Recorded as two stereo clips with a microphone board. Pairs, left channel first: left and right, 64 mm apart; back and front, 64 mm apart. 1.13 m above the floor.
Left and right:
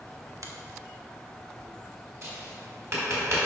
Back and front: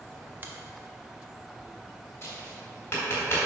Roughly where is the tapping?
Behind right.